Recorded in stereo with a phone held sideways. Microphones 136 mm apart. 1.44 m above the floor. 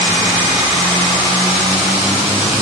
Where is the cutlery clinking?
I don't hear cutlery clinking.